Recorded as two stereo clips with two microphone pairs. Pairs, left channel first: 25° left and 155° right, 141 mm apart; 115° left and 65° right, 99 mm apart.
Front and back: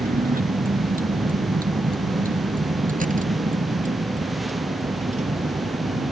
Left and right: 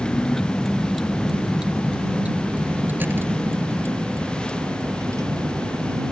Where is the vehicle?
165° right; by 6.1 s 120° right.